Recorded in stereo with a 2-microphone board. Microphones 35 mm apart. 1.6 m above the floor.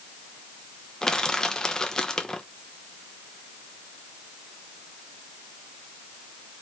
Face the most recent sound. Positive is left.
turn(degrees=20)  # may be behind; listen again after turning